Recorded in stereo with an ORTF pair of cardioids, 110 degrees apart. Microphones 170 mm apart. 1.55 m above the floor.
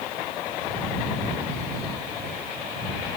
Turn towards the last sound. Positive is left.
No sound to turn to.